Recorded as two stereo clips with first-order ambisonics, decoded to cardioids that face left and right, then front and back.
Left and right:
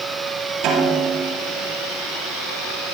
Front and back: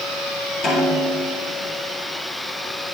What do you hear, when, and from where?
0.6 s a snare drum: 45° right, 4.5 m